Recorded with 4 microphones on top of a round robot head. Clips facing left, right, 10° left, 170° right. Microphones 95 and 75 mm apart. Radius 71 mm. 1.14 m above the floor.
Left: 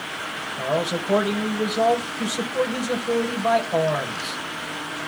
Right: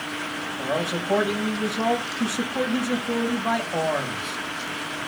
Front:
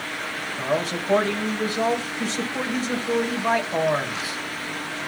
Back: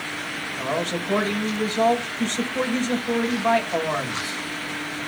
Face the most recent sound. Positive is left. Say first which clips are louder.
# left 3 dB, front 1 dB
turn(degrees=95)